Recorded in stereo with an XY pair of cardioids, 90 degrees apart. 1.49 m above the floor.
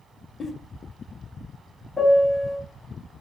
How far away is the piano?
About 0.7 m.